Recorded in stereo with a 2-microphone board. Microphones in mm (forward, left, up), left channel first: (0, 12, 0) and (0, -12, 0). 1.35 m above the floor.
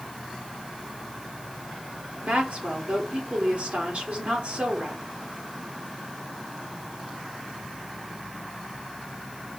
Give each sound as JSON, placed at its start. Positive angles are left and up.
{"t": 2.2, "sound": "a woman speaking", "side_deg": -50, "distance_m": 4.5}